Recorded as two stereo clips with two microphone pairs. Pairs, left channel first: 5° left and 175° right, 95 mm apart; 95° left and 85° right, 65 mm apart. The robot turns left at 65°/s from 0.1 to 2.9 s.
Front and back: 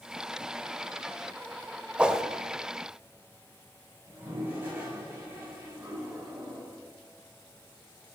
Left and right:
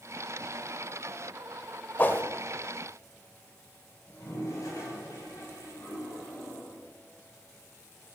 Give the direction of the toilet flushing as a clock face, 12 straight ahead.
8 o'clock.